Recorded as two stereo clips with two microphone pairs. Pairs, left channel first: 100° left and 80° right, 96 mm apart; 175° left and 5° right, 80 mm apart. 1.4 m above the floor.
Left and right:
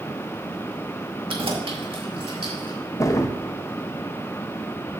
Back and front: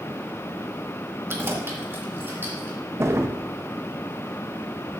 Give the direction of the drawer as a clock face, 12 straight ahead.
10 o'clock.